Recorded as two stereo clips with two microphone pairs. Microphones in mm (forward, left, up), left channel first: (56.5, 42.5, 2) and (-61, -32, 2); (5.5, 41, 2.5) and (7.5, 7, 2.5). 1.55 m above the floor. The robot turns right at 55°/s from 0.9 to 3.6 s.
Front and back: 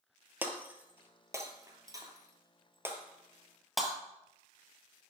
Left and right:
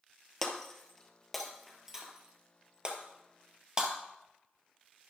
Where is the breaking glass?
155° left, 1.6 m; by 3.9 s 60° right, 1.6 m.